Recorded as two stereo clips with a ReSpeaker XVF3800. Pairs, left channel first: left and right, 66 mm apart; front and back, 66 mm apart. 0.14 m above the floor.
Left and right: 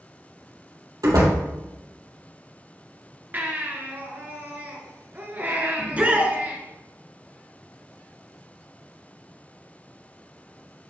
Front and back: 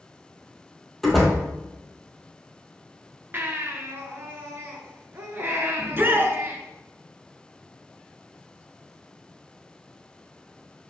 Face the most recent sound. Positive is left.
turn(degrees=-145)